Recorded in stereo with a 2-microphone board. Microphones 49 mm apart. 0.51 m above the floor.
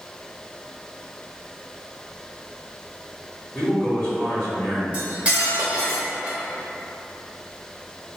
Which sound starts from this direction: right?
Cutlery clinking, at 4.9 s.